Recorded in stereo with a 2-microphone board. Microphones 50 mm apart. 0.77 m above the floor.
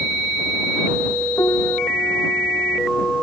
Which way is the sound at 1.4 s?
70° left (ahead or behind).